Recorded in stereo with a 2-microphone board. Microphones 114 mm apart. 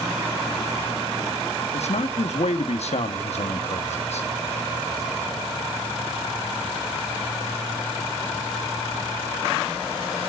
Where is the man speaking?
70° left (ahead or behind), 1.3 m.